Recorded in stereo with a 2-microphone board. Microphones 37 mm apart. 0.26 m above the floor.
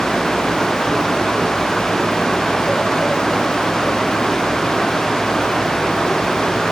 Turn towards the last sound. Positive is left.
No sound to turn to.